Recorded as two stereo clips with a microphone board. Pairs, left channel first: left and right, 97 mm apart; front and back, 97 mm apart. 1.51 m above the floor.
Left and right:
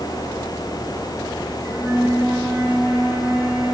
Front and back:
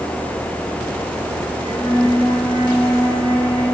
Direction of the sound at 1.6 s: 20° right.